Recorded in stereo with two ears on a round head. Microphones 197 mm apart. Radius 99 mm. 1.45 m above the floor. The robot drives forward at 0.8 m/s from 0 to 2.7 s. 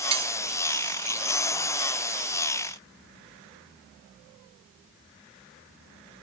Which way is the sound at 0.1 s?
30° right (ahead or behind).